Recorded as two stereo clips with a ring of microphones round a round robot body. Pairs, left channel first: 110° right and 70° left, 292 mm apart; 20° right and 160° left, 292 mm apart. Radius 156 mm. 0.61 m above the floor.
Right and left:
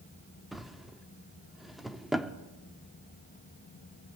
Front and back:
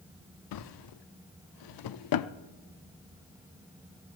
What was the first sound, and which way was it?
A drawer, 20° right.